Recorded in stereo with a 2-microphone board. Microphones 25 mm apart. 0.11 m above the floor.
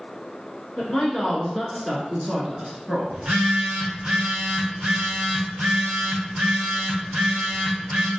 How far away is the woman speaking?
About 1.4 m.